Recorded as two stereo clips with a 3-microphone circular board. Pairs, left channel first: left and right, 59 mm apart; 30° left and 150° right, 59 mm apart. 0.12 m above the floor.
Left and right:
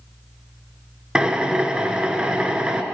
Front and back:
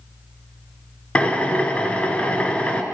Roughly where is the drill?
Ahead right.